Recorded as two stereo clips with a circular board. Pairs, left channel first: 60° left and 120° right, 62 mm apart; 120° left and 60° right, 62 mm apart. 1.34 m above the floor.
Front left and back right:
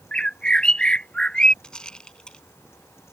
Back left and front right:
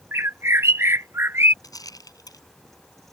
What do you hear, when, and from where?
0.1 s a bird: 15° right
1.6 s a rattle: 140° left